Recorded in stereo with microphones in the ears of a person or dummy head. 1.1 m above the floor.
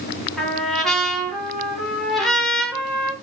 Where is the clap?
I don't hear a clap.